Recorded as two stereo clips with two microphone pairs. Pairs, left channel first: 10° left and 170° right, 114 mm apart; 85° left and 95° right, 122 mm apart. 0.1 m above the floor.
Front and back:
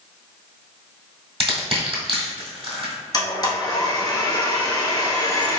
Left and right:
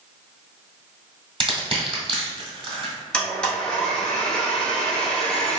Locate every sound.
1.4 s crushing: 135° right, 1.5 m
3.1 s a blender: 10° left, 1.0 m